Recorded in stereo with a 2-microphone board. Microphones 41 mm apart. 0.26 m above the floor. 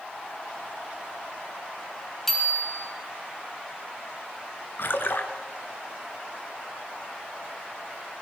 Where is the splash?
65° left (ahead or behind), 2 m.